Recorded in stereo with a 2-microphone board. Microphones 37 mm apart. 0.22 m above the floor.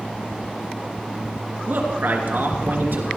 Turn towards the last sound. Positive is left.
turn(degrees=-65)  # may be behind; listen again after turning